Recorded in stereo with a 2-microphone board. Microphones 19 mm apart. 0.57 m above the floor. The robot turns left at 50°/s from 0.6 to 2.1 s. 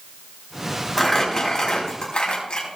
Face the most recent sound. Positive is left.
turn(degrees=115)